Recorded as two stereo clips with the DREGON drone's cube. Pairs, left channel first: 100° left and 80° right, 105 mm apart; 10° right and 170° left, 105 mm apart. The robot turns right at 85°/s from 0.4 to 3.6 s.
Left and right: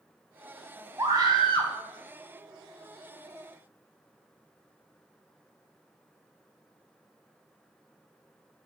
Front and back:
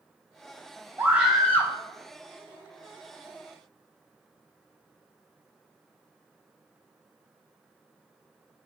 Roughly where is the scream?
Behind right.